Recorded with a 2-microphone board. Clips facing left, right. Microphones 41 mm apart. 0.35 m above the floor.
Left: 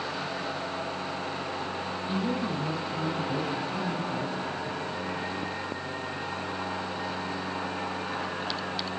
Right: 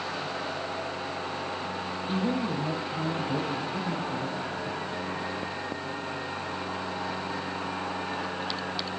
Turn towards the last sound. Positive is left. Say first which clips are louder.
# right 2 dB
turn(degrees=-20)  # may be behind; listen again after turning